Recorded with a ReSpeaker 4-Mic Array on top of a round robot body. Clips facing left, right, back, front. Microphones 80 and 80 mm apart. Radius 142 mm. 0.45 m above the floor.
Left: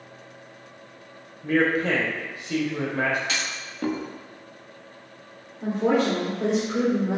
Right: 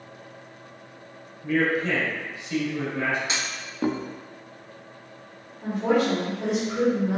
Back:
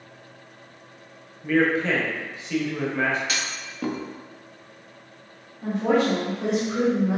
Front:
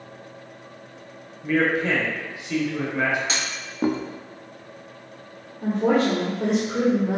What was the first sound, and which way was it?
A man speaking, 80° left.